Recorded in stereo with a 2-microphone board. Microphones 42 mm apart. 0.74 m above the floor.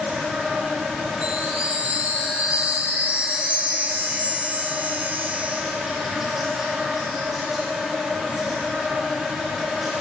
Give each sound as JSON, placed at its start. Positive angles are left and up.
{"t": 0.0, "sound": "an insect", "side_deg": -10, "distance_m": 2.5}
{"t": 1.2, "sound": "a chime", "side_deg": -40, "distance_m": 1.3}